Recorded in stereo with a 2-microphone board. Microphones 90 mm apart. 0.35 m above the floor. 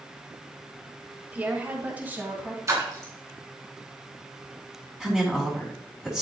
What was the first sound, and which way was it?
A woman speaking, 20° right (ahead or behind).